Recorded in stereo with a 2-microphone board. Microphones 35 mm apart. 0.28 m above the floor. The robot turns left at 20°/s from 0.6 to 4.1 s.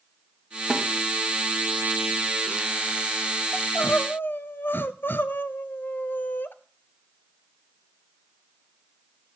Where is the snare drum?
10° right (ahead or behind), 1.9 m.